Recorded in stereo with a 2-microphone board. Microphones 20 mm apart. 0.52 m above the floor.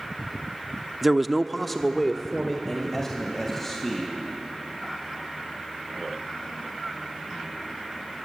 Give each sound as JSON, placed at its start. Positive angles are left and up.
{"t": 1.0, "sound": "a man speaking", "side_deg": -5, "distance_m": 0.8}